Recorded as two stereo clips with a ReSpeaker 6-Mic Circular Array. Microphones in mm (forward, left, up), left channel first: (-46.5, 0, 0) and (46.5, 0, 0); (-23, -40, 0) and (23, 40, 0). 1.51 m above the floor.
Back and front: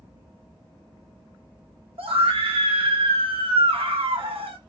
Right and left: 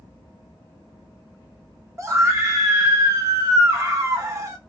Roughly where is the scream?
Ahead.